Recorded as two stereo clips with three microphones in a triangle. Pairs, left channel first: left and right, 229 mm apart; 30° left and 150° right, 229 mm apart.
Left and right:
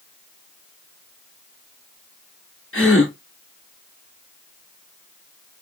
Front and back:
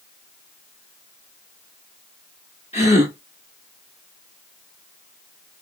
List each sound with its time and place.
2.7 s a gasp: 85° left, 0.9 m